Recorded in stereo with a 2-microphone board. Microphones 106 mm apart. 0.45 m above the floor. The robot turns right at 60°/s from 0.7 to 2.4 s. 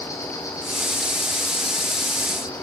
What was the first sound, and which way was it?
An insect, 35° left.